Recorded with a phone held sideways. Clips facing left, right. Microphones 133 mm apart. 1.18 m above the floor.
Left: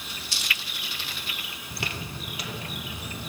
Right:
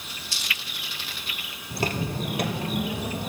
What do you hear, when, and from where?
1.7 s footsteps: 35° right (ahead or behind), 1.6 m; by 3.3 s 60° right (ahead or behind), 2.5 m